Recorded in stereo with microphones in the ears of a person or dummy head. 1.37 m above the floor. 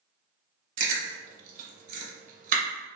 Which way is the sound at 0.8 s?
45° right (ahead or behind).